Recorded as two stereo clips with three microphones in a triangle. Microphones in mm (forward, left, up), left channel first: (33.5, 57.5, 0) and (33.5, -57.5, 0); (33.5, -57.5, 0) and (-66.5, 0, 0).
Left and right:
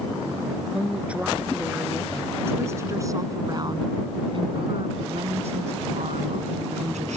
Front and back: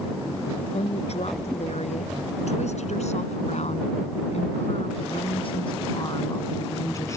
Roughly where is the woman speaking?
Ahead.